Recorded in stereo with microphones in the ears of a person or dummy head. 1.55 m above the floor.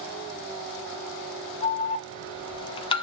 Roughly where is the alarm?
Left.